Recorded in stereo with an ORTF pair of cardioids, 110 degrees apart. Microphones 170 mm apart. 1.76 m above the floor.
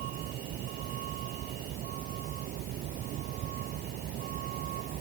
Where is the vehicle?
70° right; by 5.0 s 65° right.